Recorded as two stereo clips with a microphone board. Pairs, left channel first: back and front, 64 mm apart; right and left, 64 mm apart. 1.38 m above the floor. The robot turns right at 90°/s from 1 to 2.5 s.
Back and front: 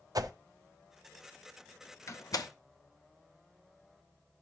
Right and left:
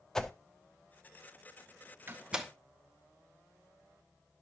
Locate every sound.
0.1 s a whoosh: 10° right, 0.6 m
2.1 s a door slam: 140° left, 0.9 m; by 2.5 s straight behind, 0.9 m